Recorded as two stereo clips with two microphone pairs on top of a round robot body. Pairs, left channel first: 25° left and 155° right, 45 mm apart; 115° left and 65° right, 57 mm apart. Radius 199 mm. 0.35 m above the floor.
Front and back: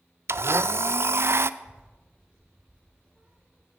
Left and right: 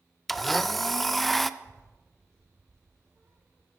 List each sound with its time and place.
0.3 s a blender: 160° right, 0.5 m
1.6 s a child speaking: 95° right, 1.8 m